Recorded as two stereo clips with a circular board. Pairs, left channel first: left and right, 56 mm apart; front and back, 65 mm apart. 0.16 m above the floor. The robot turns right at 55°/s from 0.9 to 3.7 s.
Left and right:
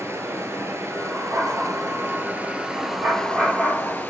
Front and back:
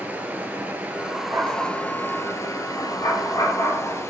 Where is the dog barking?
135° right, 8 m; by 4.0 s 5° left, 8 m.